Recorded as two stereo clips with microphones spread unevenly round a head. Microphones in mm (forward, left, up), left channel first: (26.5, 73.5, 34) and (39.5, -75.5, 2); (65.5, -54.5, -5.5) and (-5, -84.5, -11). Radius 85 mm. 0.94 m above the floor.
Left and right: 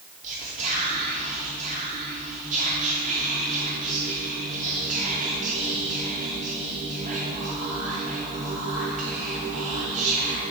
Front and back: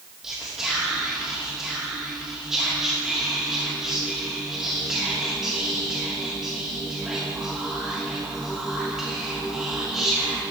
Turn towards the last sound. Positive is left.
turn(degrees=-75)